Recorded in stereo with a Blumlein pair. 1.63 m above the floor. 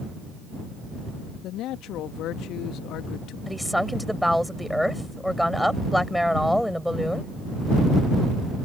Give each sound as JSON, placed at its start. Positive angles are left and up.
{"t": 1.4, "sound": "a man speaking", "azimuth_deg": 35}
{"t": 3.5, "sound": "a woman speaking", "azimuth_deg": 0}